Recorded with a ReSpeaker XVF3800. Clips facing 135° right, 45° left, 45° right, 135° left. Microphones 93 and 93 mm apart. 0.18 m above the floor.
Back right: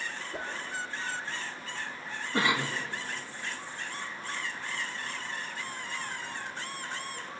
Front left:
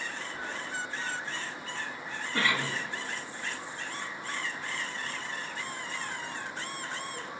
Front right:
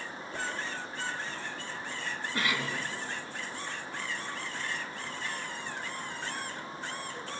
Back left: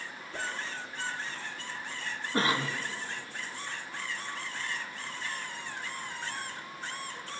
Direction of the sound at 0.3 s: 125° right.